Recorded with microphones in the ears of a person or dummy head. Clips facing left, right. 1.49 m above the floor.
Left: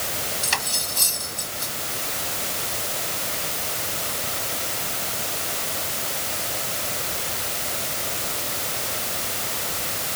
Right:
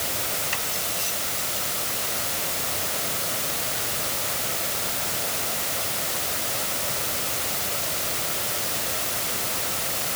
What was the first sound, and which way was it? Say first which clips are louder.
Cutlery clinking: left 1 dB; 75° left (ahead or behind).